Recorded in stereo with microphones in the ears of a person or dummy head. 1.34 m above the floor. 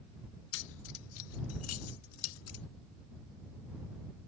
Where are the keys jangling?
55° left (ahead or behind); by 2.6 s 80° left.